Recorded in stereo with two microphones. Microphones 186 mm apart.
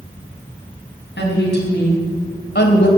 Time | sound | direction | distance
1.2 | a woman speaking | 75° left (ahead or behind) | 4.5 m